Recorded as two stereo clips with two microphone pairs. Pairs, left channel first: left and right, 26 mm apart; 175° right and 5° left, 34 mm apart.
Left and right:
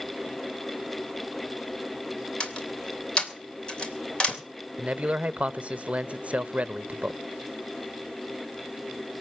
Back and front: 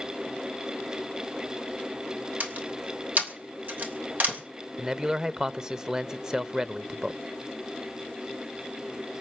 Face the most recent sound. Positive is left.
turn(degrees=-60)